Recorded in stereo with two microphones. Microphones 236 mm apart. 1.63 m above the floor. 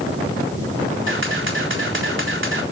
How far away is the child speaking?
No child speaking in this recording.